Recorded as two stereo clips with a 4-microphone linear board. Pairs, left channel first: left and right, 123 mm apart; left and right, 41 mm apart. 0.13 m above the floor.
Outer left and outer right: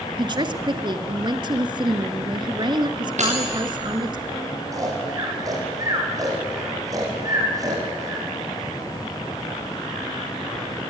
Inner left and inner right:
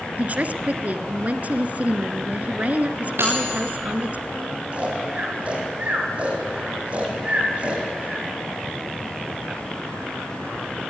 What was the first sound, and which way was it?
A woman speaking, 40° right (ahead or behind).